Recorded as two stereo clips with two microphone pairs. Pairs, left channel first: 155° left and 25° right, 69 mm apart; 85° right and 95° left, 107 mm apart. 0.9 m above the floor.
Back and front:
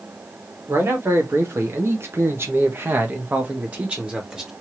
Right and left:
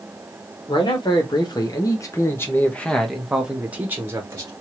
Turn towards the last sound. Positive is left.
turn(degrees=50)